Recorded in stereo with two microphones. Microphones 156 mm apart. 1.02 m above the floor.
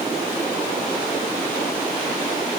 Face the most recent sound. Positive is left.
No sound to turn to.